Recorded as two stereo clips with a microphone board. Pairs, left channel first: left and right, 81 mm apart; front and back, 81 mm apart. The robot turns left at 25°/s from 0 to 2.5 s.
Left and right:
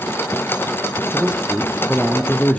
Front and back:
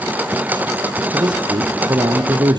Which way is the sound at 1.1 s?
165° right.